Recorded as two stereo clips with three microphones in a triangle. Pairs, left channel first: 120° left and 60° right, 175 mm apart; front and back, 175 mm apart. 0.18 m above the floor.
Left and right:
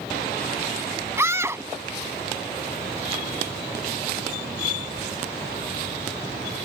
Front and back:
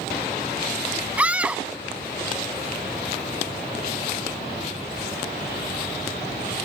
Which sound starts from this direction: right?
A scream, at 1.2 s.